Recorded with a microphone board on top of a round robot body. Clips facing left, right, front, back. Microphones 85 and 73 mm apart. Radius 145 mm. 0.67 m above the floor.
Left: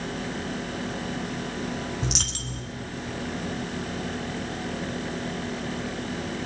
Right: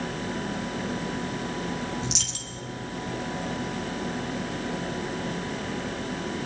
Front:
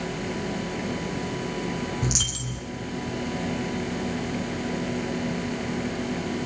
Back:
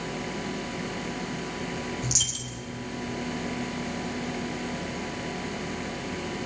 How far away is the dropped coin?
About 1.0 m.